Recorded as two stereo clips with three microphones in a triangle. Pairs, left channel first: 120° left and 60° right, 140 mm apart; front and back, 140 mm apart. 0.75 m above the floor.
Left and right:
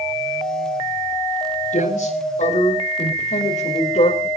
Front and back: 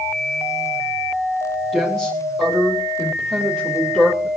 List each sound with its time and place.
1.7 s a woman speaking: 90° left, 4 m; by 4.3 s 85° left, 2.5 m